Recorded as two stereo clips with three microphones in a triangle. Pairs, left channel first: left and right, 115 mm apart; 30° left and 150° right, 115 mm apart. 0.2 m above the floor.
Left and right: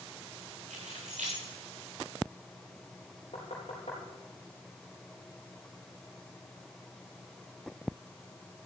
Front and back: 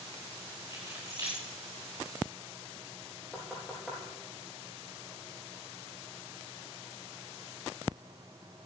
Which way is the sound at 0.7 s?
85° right.